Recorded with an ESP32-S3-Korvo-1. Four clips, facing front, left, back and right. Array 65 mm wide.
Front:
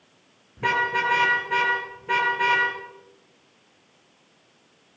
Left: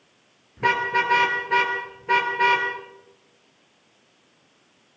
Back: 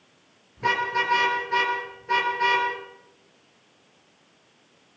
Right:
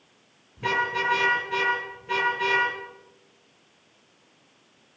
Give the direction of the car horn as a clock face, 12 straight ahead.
10 o'clock.